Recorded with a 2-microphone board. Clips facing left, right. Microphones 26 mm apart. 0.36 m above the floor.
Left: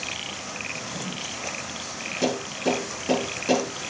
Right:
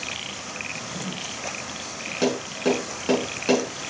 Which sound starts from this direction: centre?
A drawer, at 0.7 s.